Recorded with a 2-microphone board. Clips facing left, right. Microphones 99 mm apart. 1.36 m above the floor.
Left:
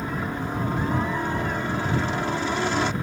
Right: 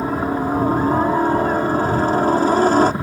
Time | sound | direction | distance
0.0 | a helicopter | 40° right (ahead or behind) | ?